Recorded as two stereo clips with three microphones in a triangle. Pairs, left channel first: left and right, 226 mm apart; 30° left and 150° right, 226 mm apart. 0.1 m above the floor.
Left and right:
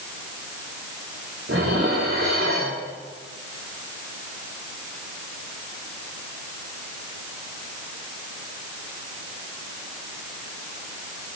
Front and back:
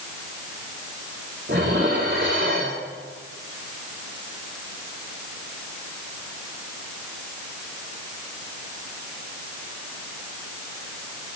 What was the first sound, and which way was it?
Dishes clattering, 110° right.